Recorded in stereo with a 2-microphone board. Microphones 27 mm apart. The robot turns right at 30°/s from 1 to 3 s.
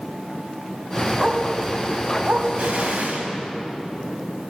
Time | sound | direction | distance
1.2 | a dog barking | 20° right (ahead or behind) | 2 m
2.6 | an explosion | 65° right (ahead or behind) | 4 m